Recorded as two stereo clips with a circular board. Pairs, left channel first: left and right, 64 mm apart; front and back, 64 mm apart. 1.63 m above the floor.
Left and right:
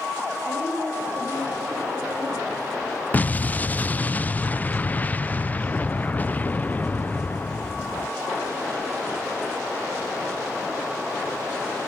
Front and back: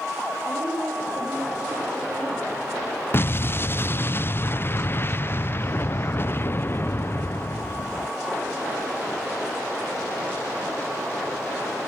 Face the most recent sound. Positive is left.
turn(degrees=35)